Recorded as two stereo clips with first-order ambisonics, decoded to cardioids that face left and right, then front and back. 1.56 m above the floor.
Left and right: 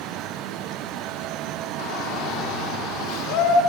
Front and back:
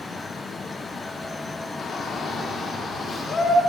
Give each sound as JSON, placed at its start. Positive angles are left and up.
{"t": 1.8, "sound": "a shout", "azimuth_deg": 60, "distance_m": 4.0}